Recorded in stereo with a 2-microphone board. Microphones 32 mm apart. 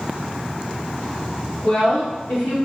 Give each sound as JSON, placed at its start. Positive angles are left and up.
{"t": 1.6, "sound": "a woman speaking", "side_deg": 85, "distance_m": 1.4}